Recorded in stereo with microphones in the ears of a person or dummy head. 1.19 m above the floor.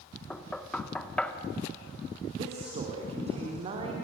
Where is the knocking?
10° left (ahead or behind), 1.4 m.